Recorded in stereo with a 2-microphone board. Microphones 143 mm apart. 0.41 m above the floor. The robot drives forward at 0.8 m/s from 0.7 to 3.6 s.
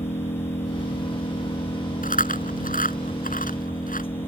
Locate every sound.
0.0 s an engine running: 50° left (ahead or behind); by 4.3 s 40° left (ahead or behind)
2.0 s chewing: 75° left (ahead or behind)